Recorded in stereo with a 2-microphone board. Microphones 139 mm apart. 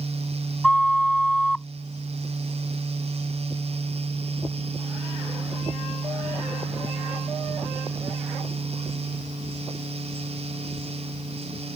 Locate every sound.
0.6 s a flute: centre (ahead or behind)